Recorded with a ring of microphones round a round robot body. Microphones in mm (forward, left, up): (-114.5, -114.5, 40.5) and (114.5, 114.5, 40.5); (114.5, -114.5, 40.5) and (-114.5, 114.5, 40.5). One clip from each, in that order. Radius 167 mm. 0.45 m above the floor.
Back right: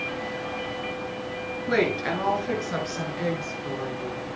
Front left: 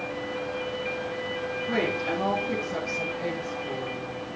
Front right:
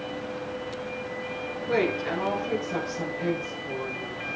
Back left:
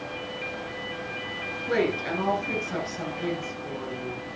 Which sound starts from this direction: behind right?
A woman speaking, at 1.7 s.